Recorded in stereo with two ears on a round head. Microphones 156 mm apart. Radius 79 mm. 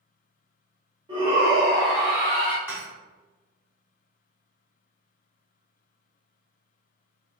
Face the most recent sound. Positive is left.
turn(degrees=-15)  # may be behind; listen again after turning